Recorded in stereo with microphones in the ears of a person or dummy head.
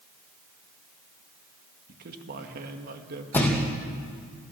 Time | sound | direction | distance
1.9 | a man speaking | 55° right (ahead or behind) | 2.0 m
3.3 | a thud | 5° left (ahead or behind) | 4.5 m